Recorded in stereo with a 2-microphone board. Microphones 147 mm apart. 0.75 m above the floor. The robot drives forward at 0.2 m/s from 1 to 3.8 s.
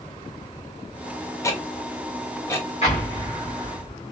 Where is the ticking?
20° left (ahead or behind), 0.6 m.